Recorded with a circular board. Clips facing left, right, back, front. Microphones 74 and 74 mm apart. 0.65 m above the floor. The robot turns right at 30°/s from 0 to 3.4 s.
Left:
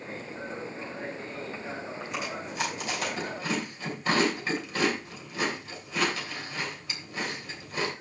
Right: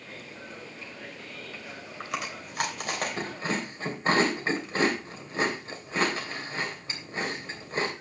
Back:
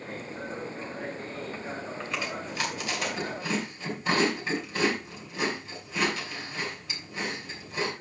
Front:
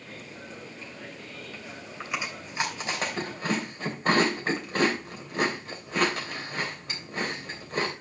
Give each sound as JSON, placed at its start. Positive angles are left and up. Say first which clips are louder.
{"t": 2.0, "sound": "chewing", "louder": "right 4 dB, front 2 dB", "azimuth_deg": -80, "distance_m": 3.0}